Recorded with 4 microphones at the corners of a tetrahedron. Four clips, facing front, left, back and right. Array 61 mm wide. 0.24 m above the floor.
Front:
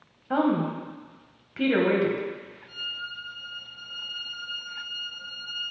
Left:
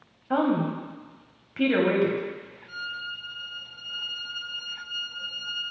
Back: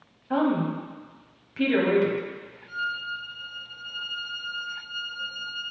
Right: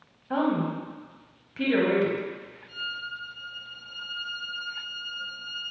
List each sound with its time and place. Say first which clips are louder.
0.3 s a woman speaking: left 2 dB, even; 40° left, 0.9 m
2.7 s a violin: even, back 5 dB; 80° left, 1.4 m